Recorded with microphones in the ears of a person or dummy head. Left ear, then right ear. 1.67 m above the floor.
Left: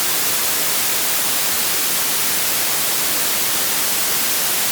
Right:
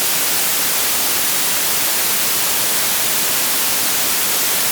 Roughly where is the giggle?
I don't hear a giggle.